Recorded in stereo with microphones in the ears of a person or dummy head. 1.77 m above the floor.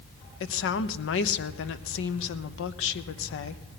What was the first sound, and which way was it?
A woman speaking, 75° left (ahead or behind).